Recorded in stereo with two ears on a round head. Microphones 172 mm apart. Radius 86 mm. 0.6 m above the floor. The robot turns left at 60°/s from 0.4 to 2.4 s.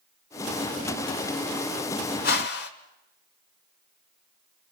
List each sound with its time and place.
2.2 s a whoosh: 55° left (ahead or behind), 1.6 m; by 2.7 s 60° left (ahead or behind), 1.6 m